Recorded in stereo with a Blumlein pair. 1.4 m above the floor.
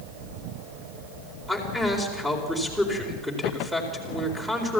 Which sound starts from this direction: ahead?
A man speaking, at 1.5 s.